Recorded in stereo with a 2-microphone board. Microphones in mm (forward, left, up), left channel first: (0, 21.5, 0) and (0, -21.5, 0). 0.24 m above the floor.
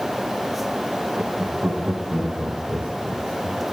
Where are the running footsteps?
No running footsteps in this recording.